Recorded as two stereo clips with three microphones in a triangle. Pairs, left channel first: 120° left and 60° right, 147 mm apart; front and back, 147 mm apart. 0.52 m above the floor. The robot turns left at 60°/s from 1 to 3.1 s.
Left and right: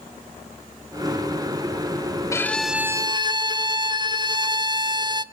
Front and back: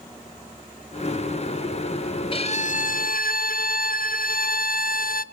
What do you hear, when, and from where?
2.3 s a violin: 50° left, 0.7 m; by 5.2 s straight ahead, 0.7 m